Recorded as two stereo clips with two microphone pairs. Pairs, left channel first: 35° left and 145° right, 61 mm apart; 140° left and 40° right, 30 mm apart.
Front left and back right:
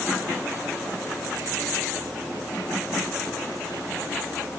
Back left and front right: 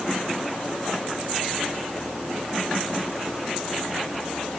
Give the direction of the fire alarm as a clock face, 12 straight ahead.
I don't hear a fire alarm.